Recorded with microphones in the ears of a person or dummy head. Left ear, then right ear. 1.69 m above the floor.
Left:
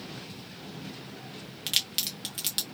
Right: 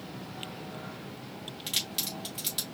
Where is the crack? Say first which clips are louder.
Left 4 dB; 20° left (ahead or behind), 1.0 m.